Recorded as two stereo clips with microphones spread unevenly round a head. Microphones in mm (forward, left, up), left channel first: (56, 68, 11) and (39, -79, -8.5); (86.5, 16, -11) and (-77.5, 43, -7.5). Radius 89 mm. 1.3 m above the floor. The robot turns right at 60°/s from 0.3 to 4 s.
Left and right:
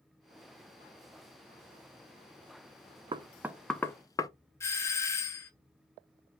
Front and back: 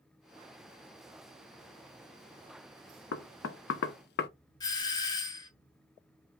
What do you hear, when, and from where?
3.1 s knocking: 35° right, 0.5 m; by 4.3 s 15° left, 0.5 m
4.6 s a doorbell: 15° left, 0.7 m